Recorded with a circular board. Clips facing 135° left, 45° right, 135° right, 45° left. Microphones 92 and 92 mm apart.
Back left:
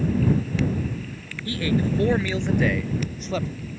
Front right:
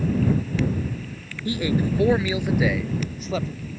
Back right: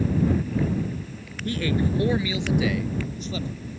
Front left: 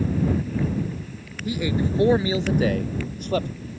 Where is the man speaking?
25° right; by 3.5 s 45° left.